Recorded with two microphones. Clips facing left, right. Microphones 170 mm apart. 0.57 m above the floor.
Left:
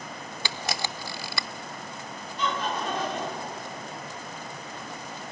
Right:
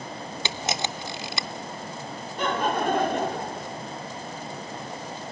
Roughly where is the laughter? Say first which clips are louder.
Right 5 dB; right.